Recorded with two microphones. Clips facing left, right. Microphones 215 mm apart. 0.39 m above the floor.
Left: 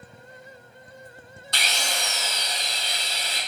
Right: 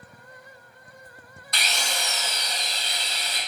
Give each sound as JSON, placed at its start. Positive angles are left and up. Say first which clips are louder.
{"t": 1.5, "sound": "a drill", "louder": "left 1 dB", "side_deg": 30, "distance_m": 1.2}